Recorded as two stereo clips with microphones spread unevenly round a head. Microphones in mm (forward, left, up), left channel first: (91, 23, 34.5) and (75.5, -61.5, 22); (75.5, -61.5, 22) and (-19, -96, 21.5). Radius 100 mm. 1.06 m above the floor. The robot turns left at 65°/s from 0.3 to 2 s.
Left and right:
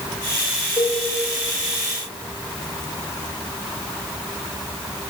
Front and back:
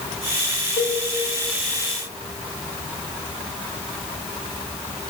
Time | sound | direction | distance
0.8 | a cowbell | 30° left | 1.7 m